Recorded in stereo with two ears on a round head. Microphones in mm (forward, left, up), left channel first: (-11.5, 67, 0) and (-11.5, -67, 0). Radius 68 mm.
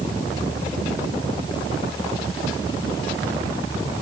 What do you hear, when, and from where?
Only background noise.